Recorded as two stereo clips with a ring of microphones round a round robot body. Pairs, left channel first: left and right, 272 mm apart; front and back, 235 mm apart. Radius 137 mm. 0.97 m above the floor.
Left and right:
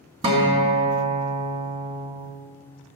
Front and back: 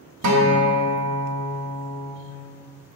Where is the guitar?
160° right, 1.9 m.